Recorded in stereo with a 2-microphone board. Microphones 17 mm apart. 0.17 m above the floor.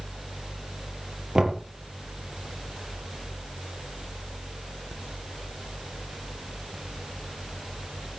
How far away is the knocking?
About 3 m.